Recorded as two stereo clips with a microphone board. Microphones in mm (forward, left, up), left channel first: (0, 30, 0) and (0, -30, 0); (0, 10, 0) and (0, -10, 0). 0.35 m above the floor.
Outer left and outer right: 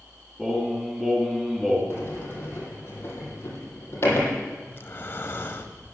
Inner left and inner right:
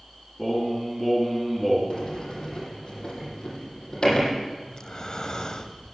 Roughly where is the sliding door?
Left.